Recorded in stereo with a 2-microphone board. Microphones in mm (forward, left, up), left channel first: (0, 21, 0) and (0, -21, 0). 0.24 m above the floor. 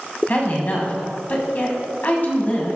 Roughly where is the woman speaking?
Left.